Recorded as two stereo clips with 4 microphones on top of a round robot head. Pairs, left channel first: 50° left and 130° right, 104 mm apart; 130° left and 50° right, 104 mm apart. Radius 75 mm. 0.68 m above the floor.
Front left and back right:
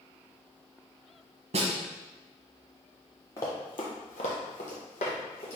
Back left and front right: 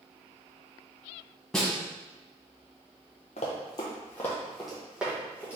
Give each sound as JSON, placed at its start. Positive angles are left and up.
{"t": 1.5, "sound": "a snare drum", "azimuth_deg": -145, "distance_m": 1.0}
{"t": 3.4, "sound": "running footsteps", "azimuth_deg": 110, "distance_m": 1.0}